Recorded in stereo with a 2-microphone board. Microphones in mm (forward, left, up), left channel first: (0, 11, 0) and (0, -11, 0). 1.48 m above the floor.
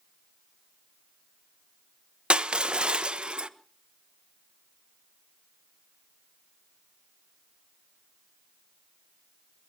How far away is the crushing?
About 0.7 m.